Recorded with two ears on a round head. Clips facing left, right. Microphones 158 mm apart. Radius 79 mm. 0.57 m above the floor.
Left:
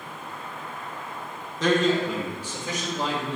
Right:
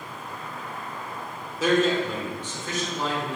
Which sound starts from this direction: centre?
A man speaking, at 1.6 s.